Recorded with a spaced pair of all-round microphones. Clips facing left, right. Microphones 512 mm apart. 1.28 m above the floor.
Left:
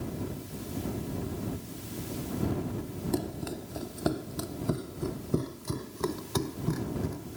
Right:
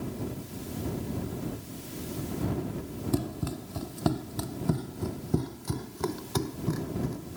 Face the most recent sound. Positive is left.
turn(degrees=5)  # may be behind; listen again after turning